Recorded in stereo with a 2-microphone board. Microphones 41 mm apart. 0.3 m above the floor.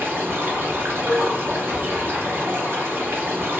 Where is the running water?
55° right (ahead or behind), 1.0 m.